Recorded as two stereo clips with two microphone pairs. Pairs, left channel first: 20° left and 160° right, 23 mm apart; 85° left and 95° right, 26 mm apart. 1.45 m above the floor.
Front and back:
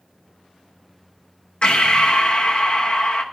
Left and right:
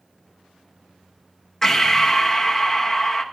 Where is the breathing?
5° left, 0.8 m.